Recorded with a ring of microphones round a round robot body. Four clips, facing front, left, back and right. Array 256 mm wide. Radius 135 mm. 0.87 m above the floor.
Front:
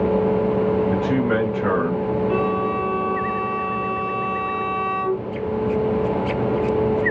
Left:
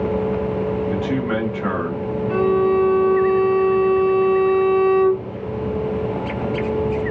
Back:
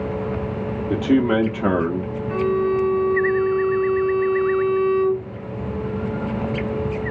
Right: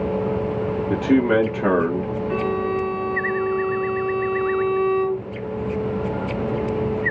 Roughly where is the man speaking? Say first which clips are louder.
Right 4 dB, back 2 dB; behind right.